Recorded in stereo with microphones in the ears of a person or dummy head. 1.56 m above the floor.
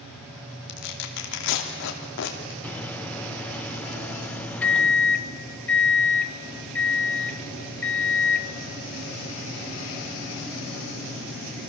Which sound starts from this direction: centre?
A microwave, at 2.6 s.